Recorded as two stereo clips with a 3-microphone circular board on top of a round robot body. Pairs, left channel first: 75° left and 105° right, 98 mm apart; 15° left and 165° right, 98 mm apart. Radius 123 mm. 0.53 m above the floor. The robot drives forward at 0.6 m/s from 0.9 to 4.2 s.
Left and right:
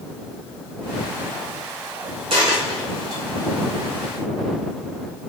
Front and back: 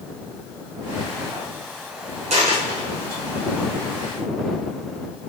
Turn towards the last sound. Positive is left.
turn(degrees=-165)